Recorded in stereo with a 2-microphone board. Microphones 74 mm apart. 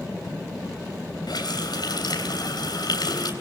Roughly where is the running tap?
Left.